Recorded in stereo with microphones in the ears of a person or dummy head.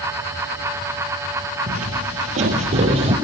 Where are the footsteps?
40° right (ahead or behind), 2 m; by 3.1 s 25° right (ahead or behind), 3 m.